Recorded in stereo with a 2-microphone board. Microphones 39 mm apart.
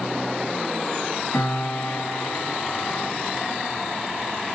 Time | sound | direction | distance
1.3 | a piano | 70° left (ahead or behind) | 1.7 m